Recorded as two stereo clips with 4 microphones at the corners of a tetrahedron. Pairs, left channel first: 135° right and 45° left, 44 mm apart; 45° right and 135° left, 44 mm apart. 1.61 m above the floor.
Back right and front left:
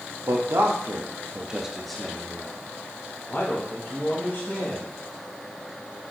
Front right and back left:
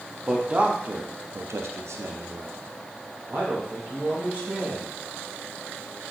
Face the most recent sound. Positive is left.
turn(degrees=-170)